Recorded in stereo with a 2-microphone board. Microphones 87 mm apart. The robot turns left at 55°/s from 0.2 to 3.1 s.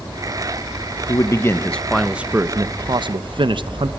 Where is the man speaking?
45° left, 1.0 m; by 3.9 s 65° right, 1.0 m.